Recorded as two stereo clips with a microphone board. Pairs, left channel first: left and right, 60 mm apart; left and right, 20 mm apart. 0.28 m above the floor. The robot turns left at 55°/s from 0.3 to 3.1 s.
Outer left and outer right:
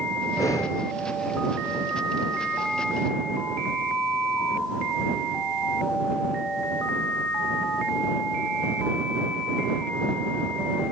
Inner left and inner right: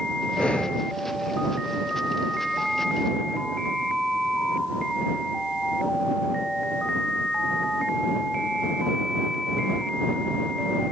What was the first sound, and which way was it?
Breathing, 80° left.